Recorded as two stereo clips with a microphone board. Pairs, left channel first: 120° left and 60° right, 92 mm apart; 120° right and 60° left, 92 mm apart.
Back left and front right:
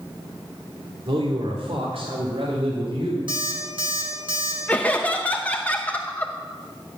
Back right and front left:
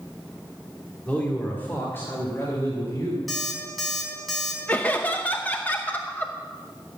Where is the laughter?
Straight behind, 0.8 m.